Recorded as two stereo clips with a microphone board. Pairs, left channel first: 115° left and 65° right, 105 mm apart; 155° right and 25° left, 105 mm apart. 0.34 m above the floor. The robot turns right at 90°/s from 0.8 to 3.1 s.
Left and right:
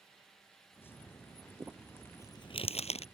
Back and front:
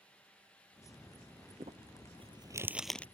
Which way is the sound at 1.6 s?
5° right.